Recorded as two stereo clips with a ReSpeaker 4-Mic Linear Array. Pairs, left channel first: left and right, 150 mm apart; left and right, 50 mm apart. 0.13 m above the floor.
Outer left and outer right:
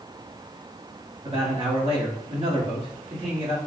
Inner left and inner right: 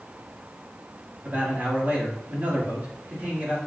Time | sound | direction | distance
1.2 | a man speaking | 40° right (ahead or behind) | 1.9 m